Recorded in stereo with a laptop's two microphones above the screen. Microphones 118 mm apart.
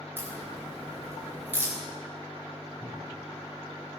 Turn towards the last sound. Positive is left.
turn(degrees=-55)  # may be behind; listen again after turning